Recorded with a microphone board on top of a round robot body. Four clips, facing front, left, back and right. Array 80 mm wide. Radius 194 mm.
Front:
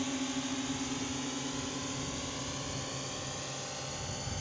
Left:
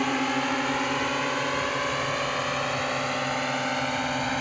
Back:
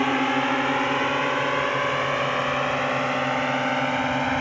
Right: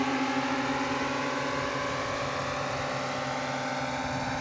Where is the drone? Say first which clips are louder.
Left 2 dB, back 14 dB; 170° left.